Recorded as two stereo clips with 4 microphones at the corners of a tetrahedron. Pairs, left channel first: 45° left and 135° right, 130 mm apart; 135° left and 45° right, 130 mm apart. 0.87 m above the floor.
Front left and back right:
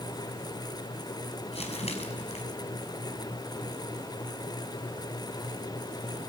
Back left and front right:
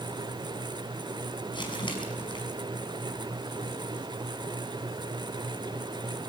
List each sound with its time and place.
1.5 s crumpling: 85° left, 5.5 m